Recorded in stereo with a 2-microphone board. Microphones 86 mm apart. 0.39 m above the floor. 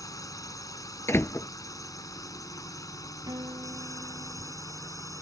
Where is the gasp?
No gasp in this recording.